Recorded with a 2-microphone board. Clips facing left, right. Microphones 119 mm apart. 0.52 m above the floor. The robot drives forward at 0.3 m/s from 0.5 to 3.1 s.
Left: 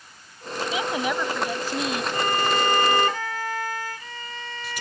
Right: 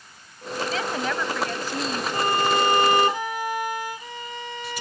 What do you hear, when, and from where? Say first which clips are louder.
0.7 s a woman speaking: left 2 dB; 15° left (ahead or behind); by 2.0 s 10° left (ahead or behind)
2.1 s a violin: right 3 dB; 20° right (ahead or behind); by 4.8 s 15° right (ahead or behind)